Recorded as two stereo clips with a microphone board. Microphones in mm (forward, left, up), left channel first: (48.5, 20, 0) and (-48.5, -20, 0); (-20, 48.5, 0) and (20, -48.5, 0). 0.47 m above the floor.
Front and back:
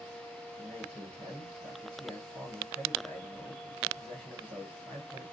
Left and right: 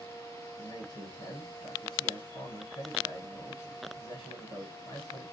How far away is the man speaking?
About 2 m.